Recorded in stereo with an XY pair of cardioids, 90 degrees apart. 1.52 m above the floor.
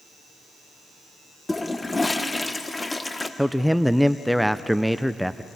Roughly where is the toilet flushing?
Ahead.